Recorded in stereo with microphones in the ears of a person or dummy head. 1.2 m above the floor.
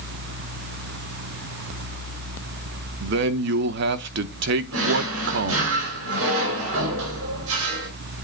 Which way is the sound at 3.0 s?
60° right (ahead or behind).